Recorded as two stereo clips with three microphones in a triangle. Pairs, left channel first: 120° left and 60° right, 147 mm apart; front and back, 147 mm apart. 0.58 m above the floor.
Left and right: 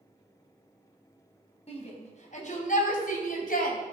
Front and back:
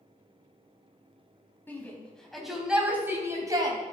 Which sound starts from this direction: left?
A shout, at 1.7 s.